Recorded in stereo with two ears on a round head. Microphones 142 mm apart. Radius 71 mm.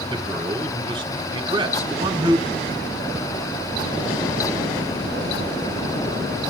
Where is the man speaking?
25° right (ahead or behind), 2.5 m.